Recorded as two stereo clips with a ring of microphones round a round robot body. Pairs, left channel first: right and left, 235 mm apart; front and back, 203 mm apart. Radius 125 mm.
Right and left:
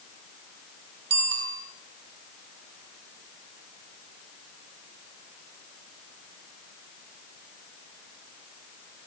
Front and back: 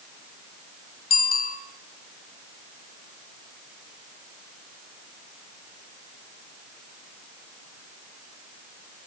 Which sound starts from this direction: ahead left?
A bicycle bell, at 1.1 s.